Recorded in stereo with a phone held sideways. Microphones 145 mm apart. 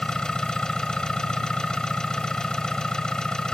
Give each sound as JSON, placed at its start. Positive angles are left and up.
{"t": 0.0, "sound": "an engine running", "side_deg": 5}